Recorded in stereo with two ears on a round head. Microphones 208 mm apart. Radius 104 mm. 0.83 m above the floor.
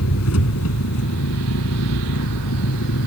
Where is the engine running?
70° left (ahead or behind).